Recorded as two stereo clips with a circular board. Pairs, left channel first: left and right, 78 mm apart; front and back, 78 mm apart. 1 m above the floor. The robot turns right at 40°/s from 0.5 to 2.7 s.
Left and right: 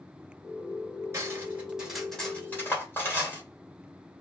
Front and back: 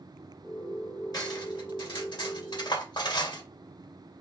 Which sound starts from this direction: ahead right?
Cutlery clinking, at 1.1 s.